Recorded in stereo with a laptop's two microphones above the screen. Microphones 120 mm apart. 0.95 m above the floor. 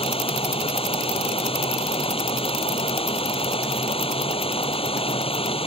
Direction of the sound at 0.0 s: 50° left (ahead or behind).